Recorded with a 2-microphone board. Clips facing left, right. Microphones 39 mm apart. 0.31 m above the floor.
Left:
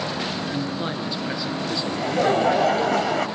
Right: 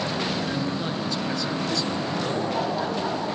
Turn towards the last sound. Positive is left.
turn(degrees=80)